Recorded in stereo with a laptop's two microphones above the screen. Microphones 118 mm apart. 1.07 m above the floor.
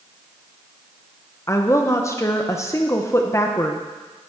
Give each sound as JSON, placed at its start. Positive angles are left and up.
{"t": 1.5, "sound": "a woman speaking", "side_deg": 25, "distance_m": 0.8}